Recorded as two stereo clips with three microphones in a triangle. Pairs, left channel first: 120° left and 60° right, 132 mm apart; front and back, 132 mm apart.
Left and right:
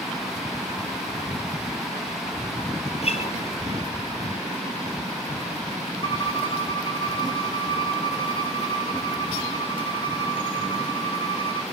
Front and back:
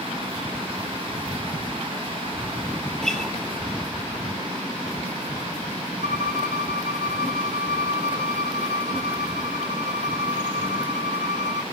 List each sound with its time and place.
3.0 s a guitar: 90° left, 3.5 m
6.0 s a violin: 170° left, 1.3 m